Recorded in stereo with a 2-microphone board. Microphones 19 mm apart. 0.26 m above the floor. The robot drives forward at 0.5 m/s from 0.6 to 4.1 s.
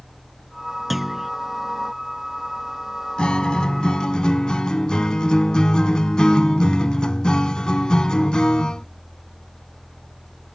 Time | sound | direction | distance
0.9 | a clunk | 5° right (ahead or behind) | ?
3.2 | a guitar | 55° left (ahead or behind) | ?